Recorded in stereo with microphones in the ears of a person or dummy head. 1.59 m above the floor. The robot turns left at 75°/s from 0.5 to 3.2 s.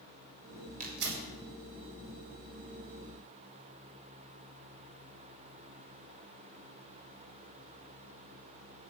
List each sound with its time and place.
0.8 s tearing paper: 45° right (ahead or behind), 4.5 m; by 1.2 s 75° right (ahead or behind), 4.5 m